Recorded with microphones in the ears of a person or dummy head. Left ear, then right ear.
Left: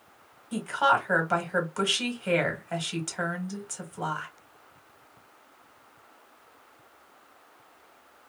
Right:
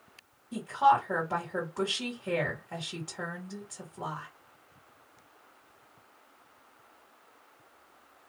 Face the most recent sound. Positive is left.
turn(degrees=50)  # may be behind; listen again after turning